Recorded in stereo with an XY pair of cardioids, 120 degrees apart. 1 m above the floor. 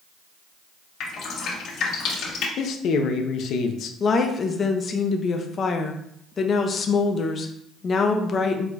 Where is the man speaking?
65° left, 0.6 m.